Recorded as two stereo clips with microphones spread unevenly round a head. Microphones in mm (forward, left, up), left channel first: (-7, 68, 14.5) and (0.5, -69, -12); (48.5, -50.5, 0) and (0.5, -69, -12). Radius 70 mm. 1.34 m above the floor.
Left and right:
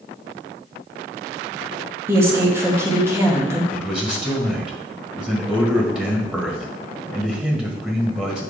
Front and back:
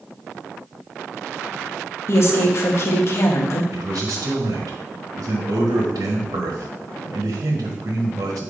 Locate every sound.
2.1 s a woman speaking: 10° right, 1.6 m
3.7 s a man speaking: 170° right, 1.2 m